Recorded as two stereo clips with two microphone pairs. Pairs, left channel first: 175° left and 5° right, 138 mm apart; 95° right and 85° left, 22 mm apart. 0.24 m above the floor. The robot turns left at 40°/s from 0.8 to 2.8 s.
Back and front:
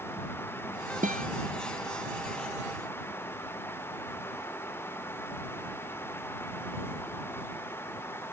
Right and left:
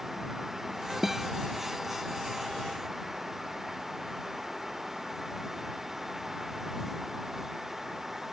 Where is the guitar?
5° left; by 1.3 s 5° right.